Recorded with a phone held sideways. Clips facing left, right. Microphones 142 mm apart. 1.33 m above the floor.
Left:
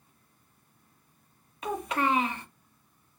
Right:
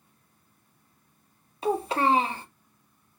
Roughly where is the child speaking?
Right.